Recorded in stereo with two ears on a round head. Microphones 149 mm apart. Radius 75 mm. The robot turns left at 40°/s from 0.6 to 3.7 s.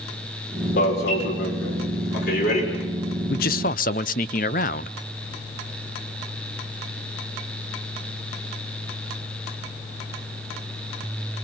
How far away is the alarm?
About 5.5 m.